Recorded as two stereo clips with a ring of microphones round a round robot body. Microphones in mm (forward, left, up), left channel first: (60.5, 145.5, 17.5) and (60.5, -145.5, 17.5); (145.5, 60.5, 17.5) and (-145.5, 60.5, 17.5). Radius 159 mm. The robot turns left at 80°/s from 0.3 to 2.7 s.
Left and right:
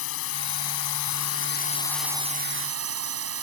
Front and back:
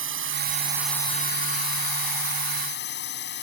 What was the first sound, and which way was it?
A drone, 135° left.